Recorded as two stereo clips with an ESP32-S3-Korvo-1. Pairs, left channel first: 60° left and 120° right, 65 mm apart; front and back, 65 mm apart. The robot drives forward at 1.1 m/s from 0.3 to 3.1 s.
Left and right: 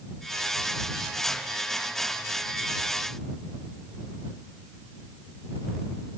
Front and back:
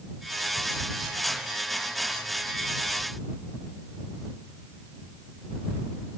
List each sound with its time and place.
Only background noise.